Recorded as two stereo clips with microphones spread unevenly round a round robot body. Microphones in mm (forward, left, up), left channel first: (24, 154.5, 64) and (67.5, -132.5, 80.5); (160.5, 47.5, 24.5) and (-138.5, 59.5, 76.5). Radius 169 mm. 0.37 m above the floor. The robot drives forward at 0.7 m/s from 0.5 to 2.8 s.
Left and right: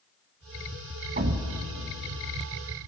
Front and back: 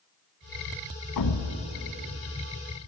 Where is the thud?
20° right, 1.7 m; by 1.5 s 25° right, 1.5 m.